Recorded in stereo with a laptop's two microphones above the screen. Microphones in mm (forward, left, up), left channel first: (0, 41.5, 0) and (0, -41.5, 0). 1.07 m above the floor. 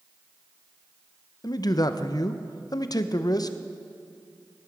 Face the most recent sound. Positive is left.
turn(degrees=50)  # may be behind; listen again after turning